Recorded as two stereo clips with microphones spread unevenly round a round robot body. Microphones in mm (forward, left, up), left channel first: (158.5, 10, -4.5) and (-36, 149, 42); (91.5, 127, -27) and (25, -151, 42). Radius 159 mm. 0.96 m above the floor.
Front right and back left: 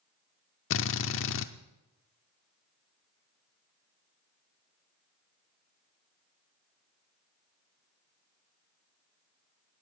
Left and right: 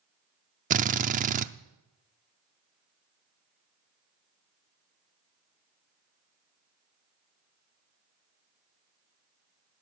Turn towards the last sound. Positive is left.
turn(degrees=-70)